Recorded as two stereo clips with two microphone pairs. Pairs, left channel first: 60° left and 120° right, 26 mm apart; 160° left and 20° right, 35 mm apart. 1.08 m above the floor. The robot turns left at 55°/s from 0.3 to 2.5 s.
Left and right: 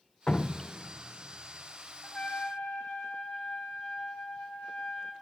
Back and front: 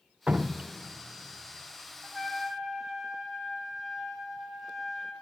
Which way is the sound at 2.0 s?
95° left.